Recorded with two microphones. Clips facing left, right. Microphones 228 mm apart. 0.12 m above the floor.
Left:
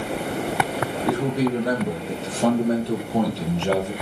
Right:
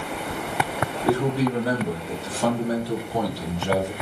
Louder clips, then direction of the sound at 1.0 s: Even; 15° left (ahead or behind).